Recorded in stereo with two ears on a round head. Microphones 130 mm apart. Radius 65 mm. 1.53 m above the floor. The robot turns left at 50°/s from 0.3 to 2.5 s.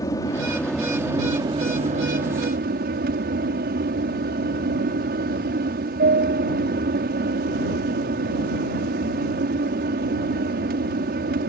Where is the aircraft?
25° left; by 11.5 s 85° right.